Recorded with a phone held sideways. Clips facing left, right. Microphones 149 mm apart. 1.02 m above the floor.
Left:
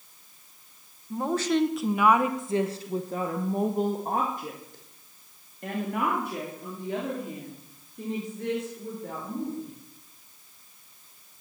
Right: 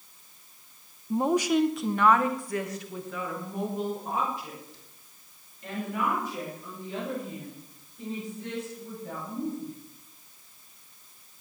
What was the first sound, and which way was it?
A woman speaking, 25° right (ahead or behind).